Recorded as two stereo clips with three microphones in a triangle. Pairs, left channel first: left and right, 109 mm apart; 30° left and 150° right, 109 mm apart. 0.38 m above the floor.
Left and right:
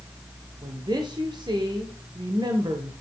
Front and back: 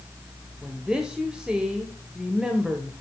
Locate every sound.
0.6 s a woman speaking: 70° right, 1.1 m